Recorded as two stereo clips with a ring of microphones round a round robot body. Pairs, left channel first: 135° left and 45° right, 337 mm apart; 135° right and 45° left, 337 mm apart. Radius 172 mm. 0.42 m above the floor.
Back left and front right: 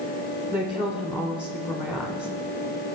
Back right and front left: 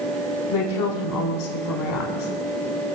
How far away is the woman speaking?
About 1.1 m.